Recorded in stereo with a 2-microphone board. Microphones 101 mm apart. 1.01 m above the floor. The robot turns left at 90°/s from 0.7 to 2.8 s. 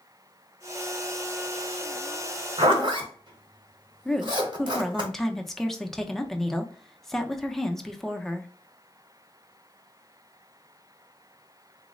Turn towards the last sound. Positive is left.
turn(degrees=0)  # may be behind; listen again after turning